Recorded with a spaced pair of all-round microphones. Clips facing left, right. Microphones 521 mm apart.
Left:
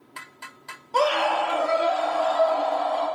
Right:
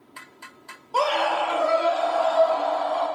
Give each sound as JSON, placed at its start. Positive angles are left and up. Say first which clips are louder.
{"t": 0.9, "sound": "a scream", "louder": "left 1 dB", "side_deg": 45, "distance_m": 0.5}